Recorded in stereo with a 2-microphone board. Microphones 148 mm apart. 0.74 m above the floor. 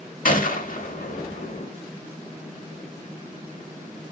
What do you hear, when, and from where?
0.2 s a gunshot: 70° left (ahead or behind), 0.9 m